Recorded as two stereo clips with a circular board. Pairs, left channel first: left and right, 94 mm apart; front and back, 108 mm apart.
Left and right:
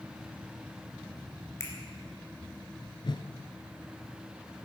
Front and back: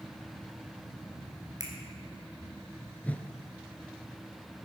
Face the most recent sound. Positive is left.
turn(degrees=75)